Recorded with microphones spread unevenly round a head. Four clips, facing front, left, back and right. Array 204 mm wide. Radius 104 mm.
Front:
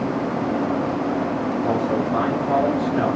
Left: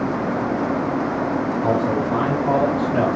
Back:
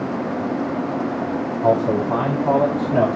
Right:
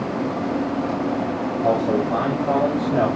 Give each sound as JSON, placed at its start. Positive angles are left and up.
{"t": 1.6, "sound": "a man speaking", "azimuth_deg": 160, "distance_m": 9.0}